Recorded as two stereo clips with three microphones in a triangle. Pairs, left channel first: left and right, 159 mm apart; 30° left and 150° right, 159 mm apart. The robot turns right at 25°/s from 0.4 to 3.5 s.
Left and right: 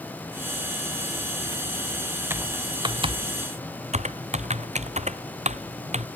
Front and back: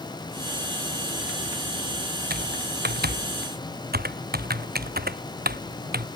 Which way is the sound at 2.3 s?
165° right.